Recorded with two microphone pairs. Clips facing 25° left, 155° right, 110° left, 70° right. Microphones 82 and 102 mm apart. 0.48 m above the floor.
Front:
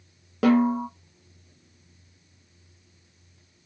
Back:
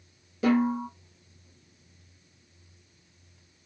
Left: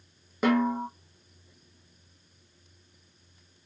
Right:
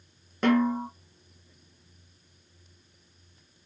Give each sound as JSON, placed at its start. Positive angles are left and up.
{"t": 0.4, "sound": "a snare drum", "azimuth_deg": 30, "distance_m": 0.9}